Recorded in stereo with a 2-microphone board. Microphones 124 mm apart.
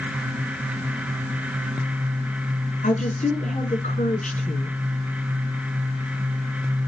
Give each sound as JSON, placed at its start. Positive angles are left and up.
{"t": 2.8, "sound": "a woman speaking", "side_deg": 75, "distance_m": 5.0}